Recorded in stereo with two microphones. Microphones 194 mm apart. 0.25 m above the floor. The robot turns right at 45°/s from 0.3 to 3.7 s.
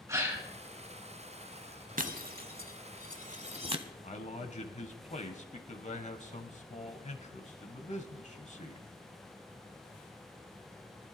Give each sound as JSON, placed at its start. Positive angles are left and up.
{"t": 0.1, "sound": "a gasp", "side_deg": -15, "distance_m": 2.5}
{"t": 2.0, "sound": "breaking glass", "side_deg": -45, "distance_m": 0.8}
{"t": 4.0, "sound": "a man speaking", "side_deg": 40, "distance_m": 1.2}